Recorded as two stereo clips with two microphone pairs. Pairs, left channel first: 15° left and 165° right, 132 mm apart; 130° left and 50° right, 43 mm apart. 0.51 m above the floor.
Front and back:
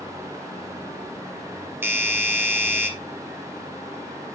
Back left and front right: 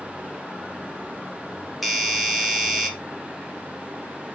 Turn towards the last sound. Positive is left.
turn(degrees=-140)